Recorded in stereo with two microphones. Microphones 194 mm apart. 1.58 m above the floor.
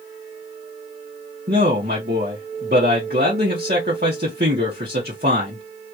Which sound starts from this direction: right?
A man speaking, at 1.5 s.